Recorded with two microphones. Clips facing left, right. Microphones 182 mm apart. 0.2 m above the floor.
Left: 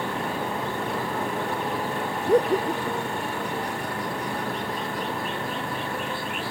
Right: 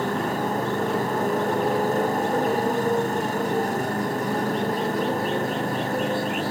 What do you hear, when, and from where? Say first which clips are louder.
0.0 s a motorcycle: right 4 dB; 40° right (ahead or behind)
2.3 s laughter: left 2 dB; 35° left (ahead or behind)